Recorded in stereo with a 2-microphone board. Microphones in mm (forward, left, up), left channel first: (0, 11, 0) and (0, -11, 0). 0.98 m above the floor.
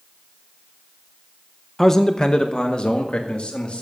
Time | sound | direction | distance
1.8 | a man speaking | 10° left (ahead or behind) | 0.6 m